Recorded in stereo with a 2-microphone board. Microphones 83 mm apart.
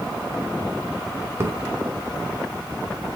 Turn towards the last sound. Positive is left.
turn(degrees=-30)  # may be behind; listen again after turning